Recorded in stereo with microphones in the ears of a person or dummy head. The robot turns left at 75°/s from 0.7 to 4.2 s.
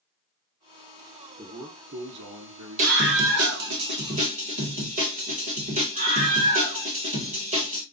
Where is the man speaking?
Straight ahead, 0.7 m; by 3.5 s 160° right, 0.7 m.